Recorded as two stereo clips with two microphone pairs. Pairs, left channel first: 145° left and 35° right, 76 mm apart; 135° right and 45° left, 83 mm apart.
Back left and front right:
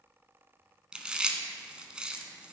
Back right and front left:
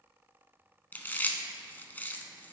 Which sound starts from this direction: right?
Chewing, at 0.9 s.